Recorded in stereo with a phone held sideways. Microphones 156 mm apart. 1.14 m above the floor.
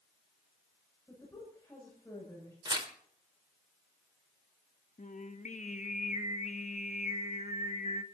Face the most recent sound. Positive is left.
turn(degrees=50)  # may be behind; listen again after turning